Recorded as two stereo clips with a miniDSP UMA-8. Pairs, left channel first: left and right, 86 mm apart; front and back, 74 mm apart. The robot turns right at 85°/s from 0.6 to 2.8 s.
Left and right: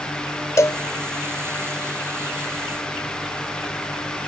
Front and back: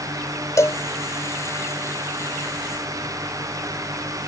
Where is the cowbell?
40° left; by 0.8 s 55° left.